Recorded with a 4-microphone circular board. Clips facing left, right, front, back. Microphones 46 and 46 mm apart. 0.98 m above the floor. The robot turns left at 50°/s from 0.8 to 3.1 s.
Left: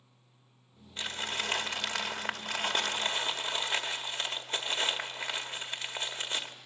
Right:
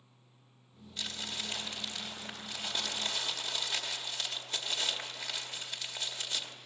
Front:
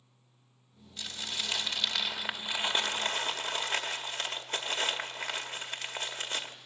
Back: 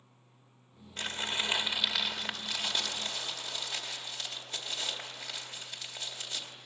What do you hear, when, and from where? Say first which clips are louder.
1.0 s crumpling: left 5 dB, back 4 dB; 145° left, 1.6 m; by 6.5 s 40° left, 1.6 m